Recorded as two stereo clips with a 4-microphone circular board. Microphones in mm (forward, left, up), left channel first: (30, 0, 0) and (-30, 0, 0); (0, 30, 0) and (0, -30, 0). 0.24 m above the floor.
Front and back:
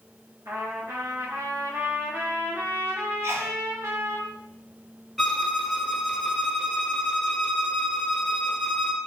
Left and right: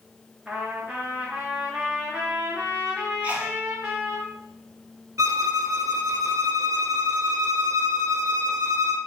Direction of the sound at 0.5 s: 165° right.